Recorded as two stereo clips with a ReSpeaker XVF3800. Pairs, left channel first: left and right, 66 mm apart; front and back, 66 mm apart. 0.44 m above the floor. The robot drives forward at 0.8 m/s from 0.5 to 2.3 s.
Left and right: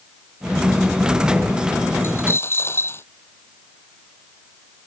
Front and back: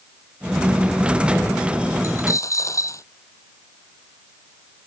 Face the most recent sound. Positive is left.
turn(degrees=40)